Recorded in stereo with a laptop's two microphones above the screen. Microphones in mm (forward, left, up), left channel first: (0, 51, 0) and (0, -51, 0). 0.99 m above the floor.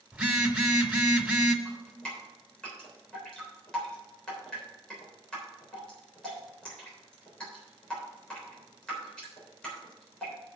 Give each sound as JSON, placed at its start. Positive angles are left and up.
{"t": 0.1, "sound": "a phone buzzing", "side_deg": -10, "distance_m": 1.4}
{"t": 1.6, "sound": "dripping", "side_deg": 10, "distance_m": 3.5}